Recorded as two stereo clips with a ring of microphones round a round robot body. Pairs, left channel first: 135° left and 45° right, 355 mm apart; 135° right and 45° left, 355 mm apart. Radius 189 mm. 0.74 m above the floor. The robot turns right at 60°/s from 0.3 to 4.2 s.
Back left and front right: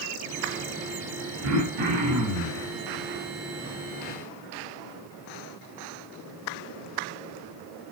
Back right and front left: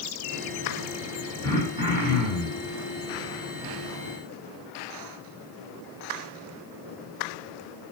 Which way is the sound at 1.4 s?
55° right.